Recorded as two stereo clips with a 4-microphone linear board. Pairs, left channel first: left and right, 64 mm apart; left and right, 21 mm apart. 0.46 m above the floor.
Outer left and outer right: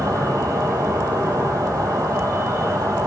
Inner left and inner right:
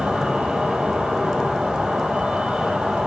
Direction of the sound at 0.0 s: 75° right (ahead or behind).